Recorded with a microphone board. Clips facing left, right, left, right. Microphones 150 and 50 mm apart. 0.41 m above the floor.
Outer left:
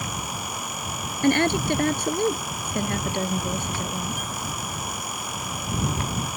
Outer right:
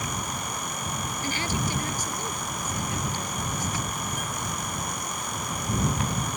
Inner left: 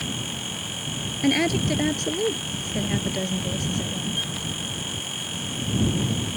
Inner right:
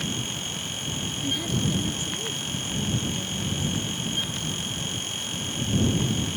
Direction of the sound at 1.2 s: 65° left (ahead or behind).